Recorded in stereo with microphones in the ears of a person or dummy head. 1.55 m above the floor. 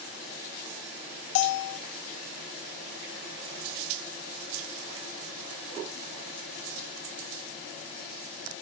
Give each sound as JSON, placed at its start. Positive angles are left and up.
{"t": 1.4, "sound": "a bell", "side_deg": 55, "distance_m": 0.6}